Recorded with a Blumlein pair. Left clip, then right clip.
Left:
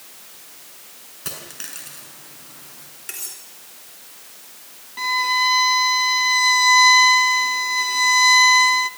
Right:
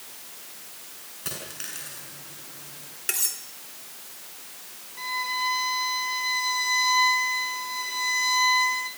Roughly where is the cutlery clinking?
Ahead.